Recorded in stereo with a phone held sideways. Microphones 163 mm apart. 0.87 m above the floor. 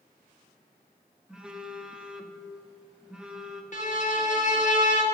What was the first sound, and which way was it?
A phone buzzing, 5° right (ahead or behind).